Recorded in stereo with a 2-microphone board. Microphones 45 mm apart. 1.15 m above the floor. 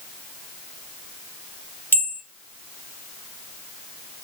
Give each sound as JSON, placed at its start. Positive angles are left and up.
{"t": 1.9, "sound": "a bell", "side_deg": 55, "distance_m": 1.9}